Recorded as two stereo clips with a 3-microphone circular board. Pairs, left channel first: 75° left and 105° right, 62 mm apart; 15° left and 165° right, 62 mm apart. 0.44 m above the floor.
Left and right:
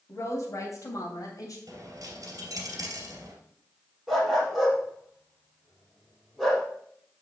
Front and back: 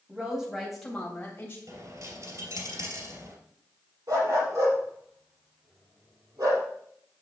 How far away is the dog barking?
About 4.5 m.